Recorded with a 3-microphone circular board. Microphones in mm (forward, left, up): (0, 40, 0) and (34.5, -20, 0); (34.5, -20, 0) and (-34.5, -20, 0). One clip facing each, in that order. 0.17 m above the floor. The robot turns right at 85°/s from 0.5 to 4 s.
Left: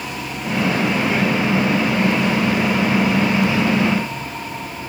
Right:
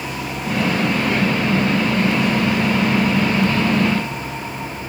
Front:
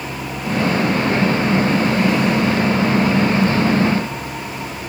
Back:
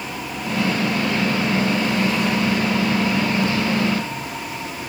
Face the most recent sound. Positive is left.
No sound to turn to.